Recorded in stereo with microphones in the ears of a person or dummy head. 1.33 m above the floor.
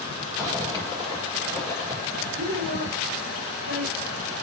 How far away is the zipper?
About 5.5 m.